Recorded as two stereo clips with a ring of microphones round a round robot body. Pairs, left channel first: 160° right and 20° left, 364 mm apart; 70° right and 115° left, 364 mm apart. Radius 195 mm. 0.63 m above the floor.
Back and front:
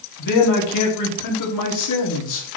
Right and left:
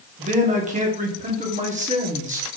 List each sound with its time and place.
0.2 s a man speaking: straight behind, 2 m